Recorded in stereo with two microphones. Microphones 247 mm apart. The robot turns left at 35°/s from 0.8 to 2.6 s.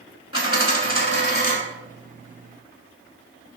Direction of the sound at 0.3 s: 60° left (ahead or behind).